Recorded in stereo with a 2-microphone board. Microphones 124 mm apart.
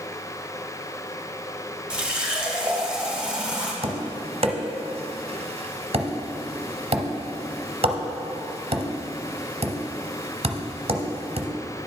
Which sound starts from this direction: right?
Tapping, at 3.8 s.